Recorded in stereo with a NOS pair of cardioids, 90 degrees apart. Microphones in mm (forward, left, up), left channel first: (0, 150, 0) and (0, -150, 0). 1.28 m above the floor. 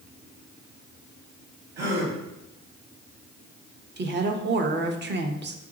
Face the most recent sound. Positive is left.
turn(degrees=-40)